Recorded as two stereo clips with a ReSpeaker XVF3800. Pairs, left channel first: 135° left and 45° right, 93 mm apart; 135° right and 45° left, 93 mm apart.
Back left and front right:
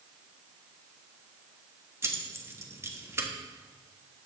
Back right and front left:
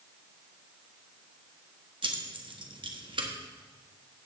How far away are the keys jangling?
About 1.3 m.